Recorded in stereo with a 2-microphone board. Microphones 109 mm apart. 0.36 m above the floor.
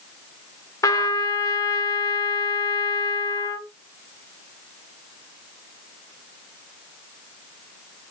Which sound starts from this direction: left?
A trumpet, at 0.8 s.